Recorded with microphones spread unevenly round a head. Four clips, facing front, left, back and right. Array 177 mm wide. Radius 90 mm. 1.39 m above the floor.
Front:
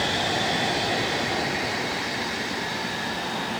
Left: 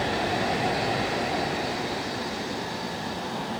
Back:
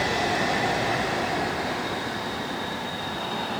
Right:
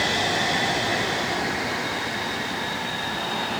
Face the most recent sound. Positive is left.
No sound to turn to.